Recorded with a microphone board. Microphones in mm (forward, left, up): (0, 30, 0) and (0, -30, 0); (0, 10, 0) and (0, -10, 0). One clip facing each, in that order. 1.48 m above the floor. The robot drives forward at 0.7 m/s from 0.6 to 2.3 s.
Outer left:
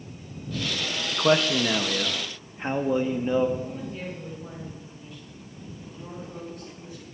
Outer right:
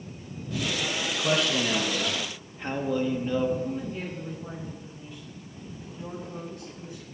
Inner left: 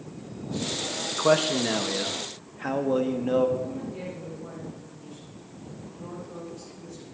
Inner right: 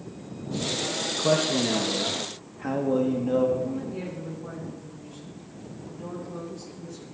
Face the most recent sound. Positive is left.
turn(degrees=-20)  # may be behind; listen again after turning